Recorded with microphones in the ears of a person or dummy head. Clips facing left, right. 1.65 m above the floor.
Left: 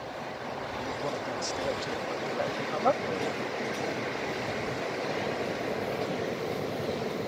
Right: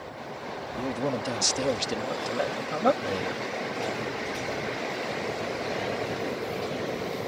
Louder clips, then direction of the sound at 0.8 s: Right 7 dB; 60° right (ahead or behind).